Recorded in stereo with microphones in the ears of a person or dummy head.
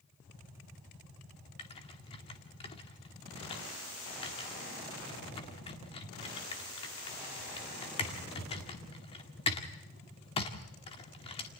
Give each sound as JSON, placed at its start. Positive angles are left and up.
{"t": 1.6, "sound": "typing on a keyboard", "side_deg": 30, "distance_m": 1.9}